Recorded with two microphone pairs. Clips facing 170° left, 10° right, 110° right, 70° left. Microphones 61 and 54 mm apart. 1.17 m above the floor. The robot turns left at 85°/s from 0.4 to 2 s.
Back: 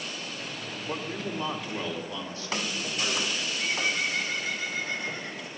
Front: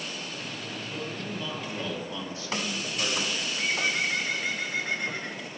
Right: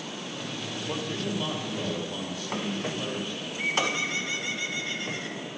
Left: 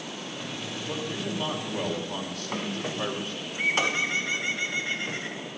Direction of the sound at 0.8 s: 165° left.